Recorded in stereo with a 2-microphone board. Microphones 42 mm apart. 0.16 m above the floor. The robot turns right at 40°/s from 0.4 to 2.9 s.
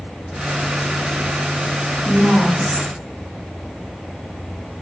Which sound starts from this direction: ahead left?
A woman speaking, at 2.0 s.